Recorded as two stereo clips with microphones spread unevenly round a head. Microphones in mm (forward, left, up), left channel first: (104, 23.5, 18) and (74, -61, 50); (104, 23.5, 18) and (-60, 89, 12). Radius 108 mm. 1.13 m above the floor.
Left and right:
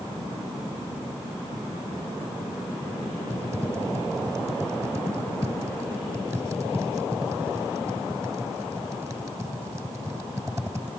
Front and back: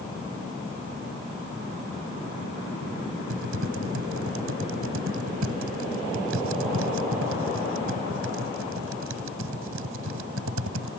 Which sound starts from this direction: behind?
Typing on a keyboard, at 3.3 s.